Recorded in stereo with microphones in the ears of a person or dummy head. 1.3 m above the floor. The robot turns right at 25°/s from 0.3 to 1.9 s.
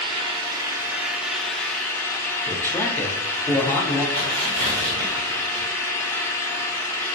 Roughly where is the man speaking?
Centre.